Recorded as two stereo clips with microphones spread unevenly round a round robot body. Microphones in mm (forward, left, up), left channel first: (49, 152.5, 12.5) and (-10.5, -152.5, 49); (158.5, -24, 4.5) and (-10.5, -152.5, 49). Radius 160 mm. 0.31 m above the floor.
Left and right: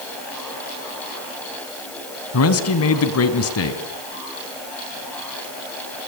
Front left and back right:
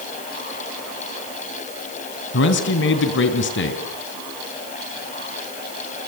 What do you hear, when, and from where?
2.3 s a man speaking: 45° left, 2.5 m